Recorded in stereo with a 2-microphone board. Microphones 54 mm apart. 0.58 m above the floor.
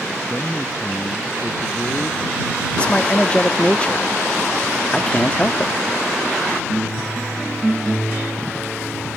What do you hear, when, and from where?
0.3 s a man speaking: 15° left (ahead or behind); by 2.7 s 25° left (ahead or behind)
2.8 s a man speaking: 20° left (ahead or behind)